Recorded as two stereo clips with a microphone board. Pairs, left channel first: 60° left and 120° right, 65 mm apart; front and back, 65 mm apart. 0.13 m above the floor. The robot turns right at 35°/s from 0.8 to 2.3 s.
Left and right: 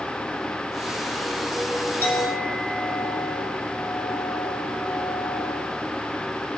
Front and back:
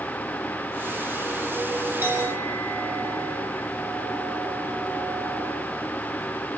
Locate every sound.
2.0 s a clink: 120° left, 4 m; by 5.7 s 130° left, 4 m